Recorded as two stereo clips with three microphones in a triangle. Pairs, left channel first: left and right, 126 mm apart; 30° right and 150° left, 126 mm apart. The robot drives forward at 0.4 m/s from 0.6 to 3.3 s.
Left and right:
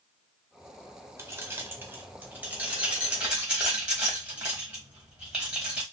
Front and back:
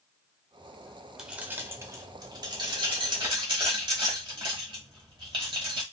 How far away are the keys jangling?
About 0.5 m.